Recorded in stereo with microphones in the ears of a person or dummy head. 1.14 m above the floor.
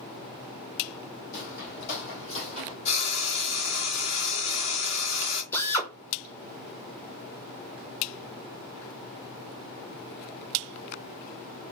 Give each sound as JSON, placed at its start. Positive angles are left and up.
{"t": 1.3, "sound": "footsteps", "side_deg": 55, "distance_m": 3.0}
{"t": 2.9, "sound": "frying", "side_deg": 35, "distance_m": 2.5}
{"t": 5.5, "sound": "a drill", "side_deg": 20, "distance_m": 1.5}